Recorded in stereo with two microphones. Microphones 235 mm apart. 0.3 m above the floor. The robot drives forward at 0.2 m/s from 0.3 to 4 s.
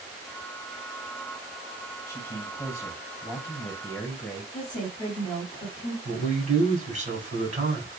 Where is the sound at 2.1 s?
10° left (ahead or behind), 1.6 m.